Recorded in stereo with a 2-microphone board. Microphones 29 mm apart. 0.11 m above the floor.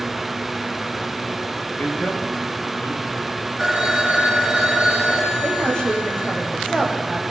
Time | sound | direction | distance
1.8 | a man speaking | 80° left | 8.5 m
3.6 | a phone ringing | 5° right (ahead or behind) | 9.5 m
5.4 | a woman speaking | 30° left (ahead or behind) | 7.5 m